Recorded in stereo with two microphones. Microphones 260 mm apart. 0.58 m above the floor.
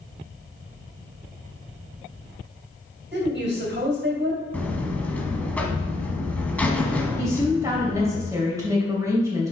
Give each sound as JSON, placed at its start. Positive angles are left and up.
{"t": 3.1, "sound": "a woman speaking", "side_deg": -45, "distance_m": 2.5}
{"t": 4.5, "sound": "a buzzer", "side_deg": 5, "distance_m": 1.0}
{"t": 7.2, "sound": "a woman speaking", "side_deg": -10, "distance_m": 2.5}